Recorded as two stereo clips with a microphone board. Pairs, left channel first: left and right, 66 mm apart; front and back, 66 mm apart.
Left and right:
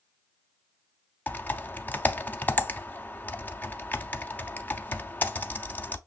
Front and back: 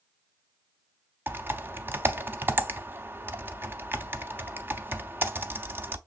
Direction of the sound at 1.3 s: 140° left.